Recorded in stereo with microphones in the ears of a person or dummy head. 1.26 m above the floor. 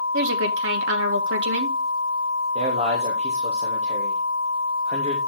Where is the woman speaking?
70° right (ahead or behind), 2 m.